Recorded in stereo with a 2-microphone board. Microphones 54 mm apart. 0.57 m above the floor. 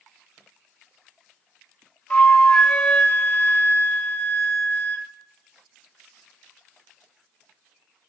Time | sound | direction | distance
2.1 | a flute | 25° left (ahead or behind) | 0.8 m